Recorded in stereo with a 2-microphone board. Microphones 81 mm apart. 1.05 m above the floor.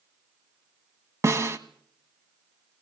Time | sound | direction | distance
1.2 | a snare drum | 35° right (ahead or behind) | 1.4 m